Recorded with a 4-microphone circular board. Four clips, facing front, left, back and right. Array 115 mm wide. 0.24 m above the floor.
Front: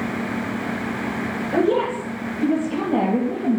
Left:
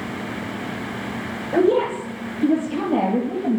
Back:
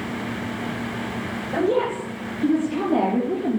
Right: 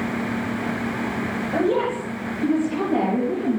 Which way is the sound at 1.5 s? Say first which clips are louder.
Left 4 dB, front 2 dB; 55° left.